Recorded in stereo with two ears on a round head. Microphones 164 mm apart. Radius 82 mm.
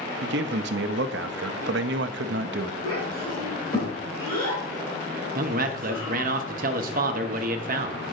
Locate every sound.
0.2 s a man speaking: 65° right (ahead or behind), 0.6 m
2.8 s a child speaking: 25° left (ahead or behind), 2.5 m
5.3 s a man speaking: 50° right (ahead or behind), 0.9 m